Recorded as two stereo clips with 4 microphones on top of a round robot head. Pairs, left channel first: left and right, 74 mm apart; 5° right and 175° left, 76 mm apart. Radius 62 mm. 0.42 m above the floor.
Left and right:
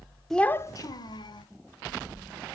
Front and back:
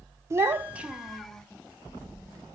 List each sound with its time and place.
0.3 s a child speaking: 175° left, 0.6 m; by 1.5 s 85° left, 1.3 m